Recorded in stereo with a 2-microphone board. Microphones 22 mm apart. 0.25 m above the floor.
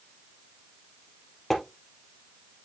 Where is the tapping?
10° left (ahead or behind), 2.5 m.